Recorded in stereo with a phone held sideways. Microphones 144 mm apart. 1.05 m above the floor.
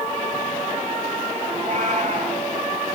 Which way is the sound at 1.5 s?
55° right (ahead or behind).